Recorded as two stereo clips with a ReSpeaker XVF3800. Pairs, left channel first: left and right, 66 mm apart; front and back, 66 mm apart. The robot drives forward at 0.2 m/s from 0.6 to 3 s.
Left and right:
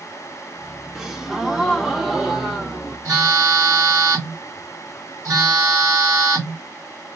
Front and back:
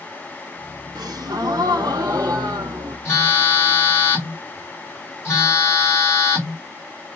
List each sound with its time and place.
0.9 s a gasp: 175° right, 0.7 m
3.0 s a phone buzzing: 50° right, 2 m